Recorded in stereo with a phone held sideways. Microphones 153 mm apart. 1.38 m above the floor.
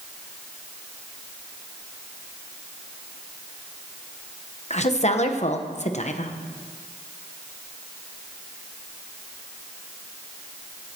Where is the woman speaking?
50° left (ahead or behind), 1.1 m.